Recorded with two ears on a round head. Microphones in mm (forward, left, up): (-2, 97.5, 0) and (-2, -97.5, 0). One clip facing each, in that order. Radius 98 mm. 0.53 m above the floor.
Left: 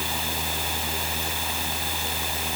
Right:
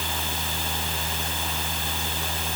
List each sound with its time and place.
Only background noise.